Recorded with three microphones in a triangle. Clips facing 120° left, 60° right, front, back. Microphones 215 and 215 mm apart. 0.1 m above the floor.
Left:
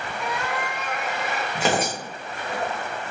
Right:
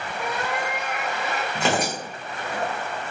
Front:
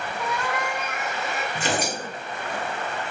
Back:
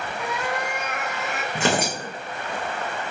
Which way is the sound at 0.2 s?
100° right.